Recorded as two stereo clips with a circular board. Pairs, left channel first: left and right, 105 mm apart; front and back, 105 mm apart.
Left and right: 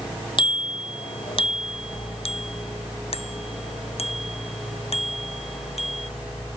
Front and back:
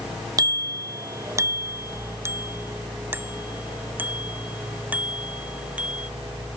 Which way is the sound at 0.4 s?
125° left.